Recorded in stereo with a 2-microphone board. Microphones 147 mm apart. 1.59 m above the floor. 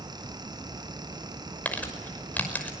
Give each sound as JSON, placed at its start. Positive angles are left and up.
{"t": 1.6, "sound": "crumpling", "side_deg": 10, "distance_m": 5.5}